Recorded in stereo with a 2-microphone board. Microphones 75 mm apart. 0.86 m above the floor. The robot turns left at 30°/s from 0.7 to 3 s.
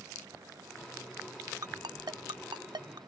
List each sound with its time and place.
1.6 s a ringtone: 60° right (ahead or behind); by 3.0 s 75° right (ahead or behind)